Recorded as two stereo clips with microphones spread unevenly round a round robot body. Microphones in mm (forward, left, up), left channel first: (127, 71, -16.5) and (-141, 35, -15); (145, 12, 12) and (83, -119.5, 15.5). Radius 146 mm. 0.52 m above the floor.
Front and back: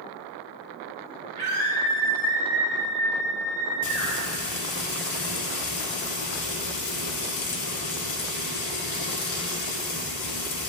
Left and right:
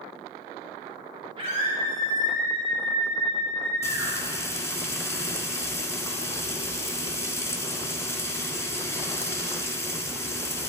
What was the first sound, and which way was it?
A scream, 125° right.